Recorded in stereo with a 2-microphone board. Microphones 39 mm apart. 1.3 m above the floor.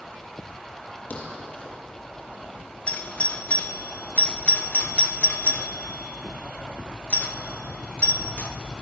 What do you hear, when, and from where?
1.1 s a thud: 40° left (ahead or behind), 6.5 m
2.9 s a doorbell: 35° left (ahead or behind), 1.5 m